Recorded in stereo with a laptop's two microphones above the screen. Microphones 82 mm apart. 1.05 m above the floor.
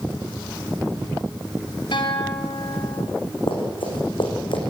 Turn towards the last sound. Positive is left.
turn(degrees=70)  # may be behind; listen again after turning